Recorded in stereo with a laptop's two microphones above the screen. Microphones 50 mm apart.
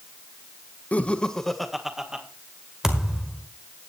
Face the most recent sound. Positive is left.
turn(degrees=-10)  # may be behind; listen again after turning